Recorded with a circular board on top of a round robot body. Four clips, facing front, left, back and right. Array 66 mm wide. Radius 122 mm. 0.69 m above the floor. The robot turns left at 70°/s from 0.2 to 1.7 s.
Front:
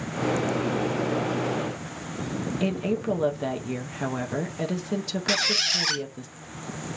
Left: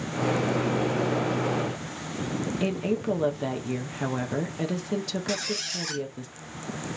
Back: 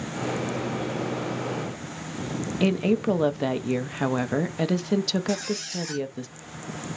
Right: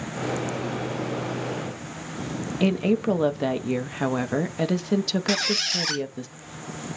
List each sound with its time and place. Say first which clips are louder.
2.6 s a woman speaking: right 7 dB, back 5 dB; 140° right, 0.8 m
5.3 s a squeak: right 5 dB, front 1 dB; 25° right, 0.7 m